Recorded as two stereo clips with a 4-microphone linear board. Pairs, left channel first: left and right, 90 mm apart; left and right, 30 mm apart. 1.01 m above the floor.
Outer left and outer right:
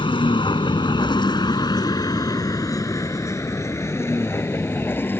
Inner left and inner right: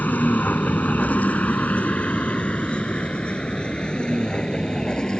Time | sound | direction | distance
0.0 | a vehicle | 80° left | ?